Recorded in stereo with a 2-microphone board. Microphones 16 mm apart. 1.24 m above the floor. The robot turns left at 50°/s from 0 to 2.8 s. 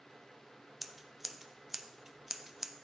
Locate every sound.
0.8 s scissors: 5° right (ahead or behind), 0.5 m; by 2.8 s 15° right (ahead or behind), 0.5 m